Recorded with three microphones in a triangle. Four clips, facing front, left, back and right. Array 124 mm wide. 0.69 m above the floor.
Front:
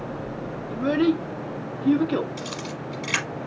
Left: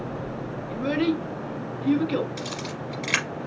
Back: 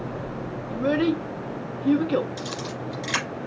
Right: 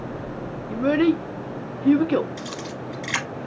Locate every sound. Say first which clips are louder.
0.7 s a child speaking: right 5 dB, front 1 dB; 90° right, 0.7 m
2.4 s a camera shutter: even, back 1 dB; 100° left, 3 m